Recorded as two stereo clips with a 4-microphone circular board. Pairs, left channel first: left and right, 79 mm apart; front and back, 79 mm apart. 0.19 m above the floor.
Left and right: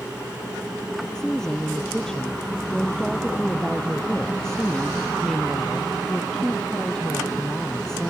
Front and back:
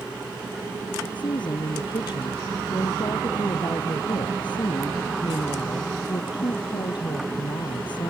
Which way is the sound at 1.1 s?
10° left.